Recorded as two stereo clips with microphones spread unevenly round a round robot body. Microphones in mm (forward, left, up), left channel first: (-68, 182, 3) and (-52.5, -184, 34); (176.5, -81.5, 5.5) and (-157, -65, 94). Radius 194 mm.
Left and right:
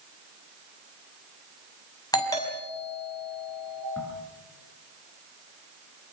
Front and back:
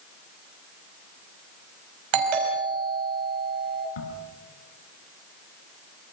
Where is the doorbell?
170° left, 5.5 m.